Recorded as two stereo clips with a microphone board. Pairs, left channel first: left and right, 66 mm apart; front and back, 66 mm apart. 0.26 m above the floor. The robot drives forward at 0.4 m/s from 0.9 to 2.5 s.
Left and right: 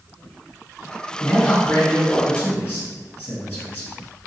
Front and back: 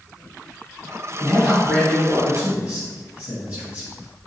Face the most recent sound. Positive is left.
turn(degrees=140)